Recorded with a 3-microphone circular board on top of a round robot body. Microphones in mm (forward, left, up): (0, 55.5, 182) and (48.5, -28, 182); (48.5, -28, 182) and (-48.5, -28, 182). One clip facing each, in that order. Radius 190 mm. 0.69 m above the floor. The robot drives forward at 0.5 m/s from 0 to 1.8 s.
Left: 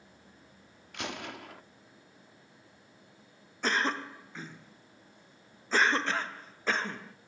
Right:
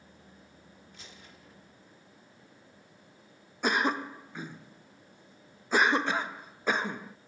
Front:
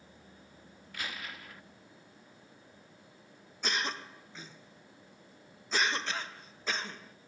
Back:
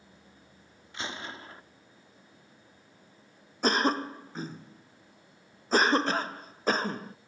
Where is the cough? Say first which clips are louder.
Right 2 dB, back 10 dB; 135° right.